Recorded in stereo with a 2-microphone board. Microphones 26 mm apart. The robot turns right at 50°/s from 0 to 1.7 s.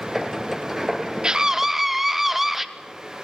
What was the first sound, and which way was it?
A scream, 35° right (ahead or behind).